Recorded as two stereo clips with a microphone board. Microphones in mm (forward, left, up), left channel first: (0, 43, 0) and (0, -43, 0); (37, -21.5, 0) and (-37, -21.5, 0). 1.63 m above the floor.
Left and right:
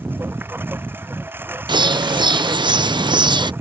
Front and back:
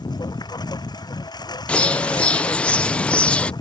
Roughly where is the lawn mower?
Ahead right.